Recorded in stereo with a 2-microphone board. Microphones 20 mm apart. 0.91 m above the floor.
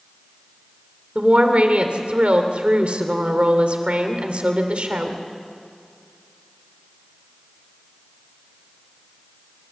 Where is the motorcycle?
No motorcycle in this recording.